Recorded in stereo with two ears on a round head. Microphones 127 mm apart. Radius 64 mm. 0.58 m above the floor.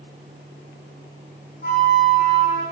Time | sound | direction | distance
1.6 | a flute | 65° left (ahead or behind) | 9 m